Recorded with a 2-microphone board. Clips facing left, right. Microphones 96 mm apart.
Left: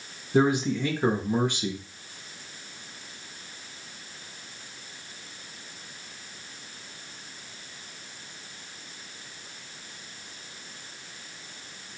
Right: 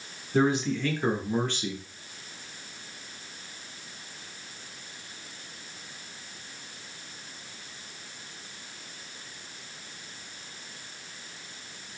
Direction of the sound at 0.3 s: 15° left (ahead or behind).